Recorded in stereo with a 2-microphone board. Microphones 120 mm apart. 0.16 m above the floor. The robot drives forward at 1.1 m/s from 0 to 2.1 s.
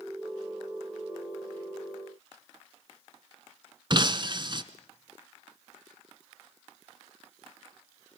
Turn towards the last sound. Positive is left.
turn(degrees=-40)  # may be behind; listen again after turning